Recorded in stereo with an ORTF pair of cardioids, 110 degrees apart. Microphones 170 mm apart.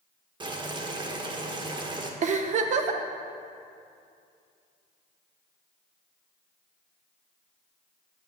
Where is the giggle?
50° right, 0.8 m.